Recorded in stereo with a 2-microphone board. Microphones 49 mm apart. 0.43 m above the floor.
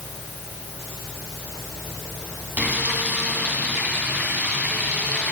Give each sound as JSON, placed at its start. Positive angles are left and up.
{"t": 2.6, "sound": "frying", "side_deg": -40, "distance_m": 2.5}